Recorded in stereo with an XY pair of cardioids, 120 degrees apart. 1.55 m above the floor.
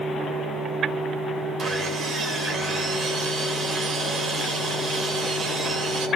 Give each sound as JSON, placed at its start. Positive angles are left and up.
{"t": 1.6, "sound": "sawing", "azimuth_deg": -40, "distance_m": 8.0}